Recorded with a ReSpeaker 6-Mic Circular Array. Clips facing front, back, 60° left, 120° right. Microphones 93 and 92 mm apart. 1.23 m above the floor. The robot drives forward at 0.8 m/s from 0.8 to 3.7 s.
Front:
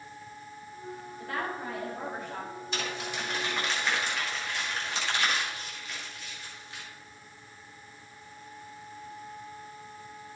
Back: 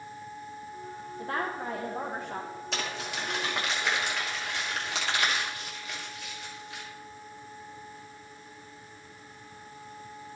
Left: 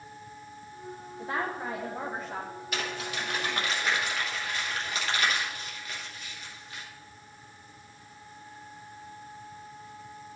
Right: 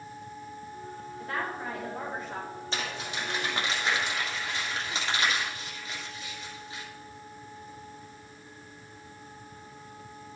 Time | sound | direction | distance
1.2 | a woman speaking | 125° left | 0.9 m
2.7 | crumpling | 175° left | 2.5 m